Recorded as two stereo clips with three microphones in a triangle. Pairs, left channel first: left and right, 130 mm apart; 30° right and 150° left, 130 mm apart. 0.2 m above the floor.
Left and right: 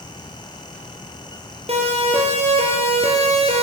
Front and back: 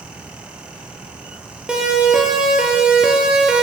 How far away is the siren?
About 5.5 m.